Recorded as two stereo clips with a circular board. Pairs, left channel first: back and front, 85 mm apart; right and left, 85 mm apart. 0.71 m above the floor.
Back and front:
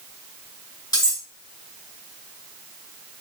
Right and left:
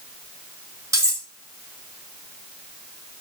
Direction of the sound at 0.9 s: 140° left.